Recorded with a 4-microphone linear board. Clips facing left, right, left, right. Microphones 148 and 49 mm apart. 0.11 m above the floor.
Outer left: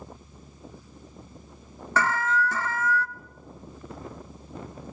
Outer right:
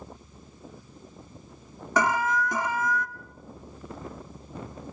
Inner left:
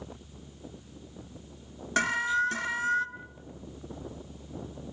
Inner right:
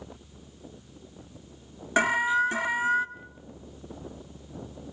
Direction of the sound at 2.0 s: 15° right (ahead or behind).